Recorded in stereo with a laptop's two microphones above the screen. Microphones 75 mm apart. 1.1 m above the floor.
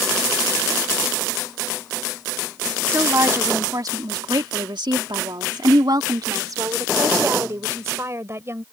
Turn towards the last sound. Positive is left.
turn(degrees=-35)  # may be behind; listen again after turning